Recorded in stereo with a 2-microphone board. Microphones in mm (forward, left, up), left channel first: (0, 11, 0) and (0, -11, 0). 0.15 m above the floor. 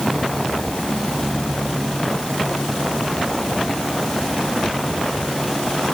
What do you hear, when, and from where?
Only background noise.